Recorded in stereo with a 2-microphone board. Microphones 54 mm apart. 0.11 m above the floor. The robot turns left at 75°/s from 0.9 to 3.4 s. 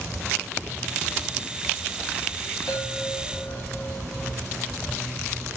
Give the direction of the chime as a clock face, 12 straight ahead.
9 o'clock.